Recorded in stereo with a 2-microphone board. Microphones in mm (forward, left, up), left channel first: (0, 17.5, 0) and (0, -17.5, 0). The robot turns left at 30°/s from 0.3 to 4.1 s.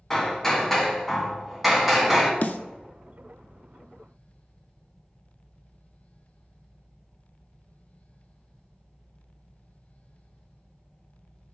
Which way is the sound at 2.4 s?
50° left (ahead or behind).